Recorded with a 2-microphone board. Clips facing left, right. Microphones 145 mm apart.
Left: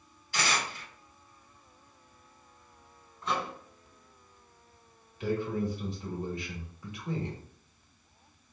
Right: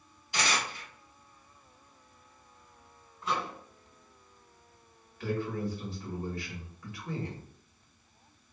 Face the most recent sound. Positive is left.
turn(degrees=20)  # may be behind; listen again after turning